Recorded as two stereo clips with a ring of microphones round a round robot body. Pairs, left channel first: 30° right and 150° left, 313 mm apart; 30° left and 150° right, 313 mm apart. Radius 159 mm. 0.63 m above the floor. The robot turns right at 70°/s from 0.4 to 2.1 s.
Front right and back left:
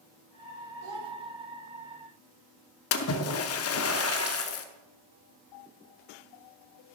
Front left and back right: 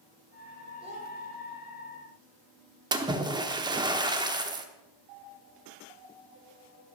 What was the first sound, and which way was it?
A child speaking, 135° left.